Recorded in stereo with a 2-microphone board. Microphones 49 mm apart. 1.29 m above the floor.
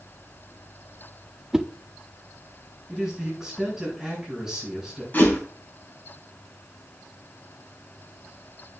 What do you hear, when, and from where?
1.5 s a whoosh: 15° right (ahead or behind), 0.6 m
2.9 s a man speaking: 10° right (ahead or behind), 7 m
5.1 s a whoosh: 40° left (ahead or behind), 3.5 m